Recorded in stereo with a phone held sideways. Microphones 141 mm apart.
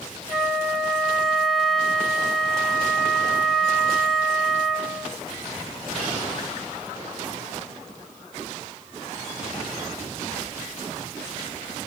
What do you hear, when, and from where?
0.3 s a flute: 5° left (ahead or behind), 0.7 m